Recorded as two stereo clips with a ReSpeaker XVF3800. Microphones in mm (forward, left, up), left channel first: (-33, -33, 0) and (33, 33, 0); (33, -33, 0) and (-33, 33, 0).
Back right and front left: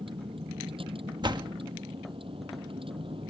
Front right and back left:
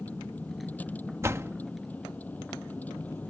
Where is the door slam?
75° left.